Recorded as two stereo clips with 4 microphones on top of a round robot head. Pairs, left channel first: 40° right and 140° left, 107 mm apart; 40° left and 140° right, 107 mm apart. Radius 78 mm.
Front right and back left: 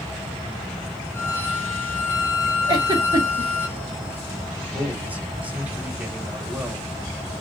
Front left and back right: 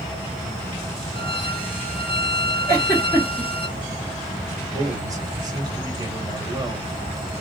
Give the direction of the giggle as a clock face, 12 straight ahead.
9 o'clock.